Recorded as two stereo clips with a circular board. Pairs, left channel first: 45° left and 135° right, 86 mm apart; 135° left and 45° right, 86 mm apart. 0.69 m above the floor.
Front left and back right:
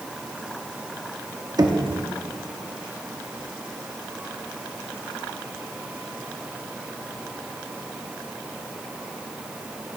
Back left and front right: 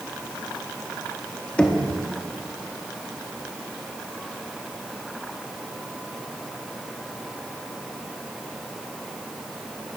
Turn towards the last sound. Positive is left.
turn(degrees=-150)